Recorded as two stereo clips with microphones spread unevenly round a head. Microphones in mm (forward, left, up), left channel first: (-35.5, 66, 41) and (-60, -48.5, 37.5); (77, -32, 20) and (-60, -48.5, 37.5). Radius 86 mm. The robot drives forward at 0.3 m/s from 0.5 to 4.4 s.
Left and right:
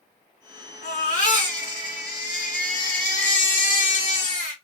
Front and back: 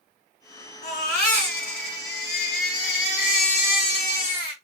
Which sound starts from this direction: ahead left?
A baby crying, at 0.8 s.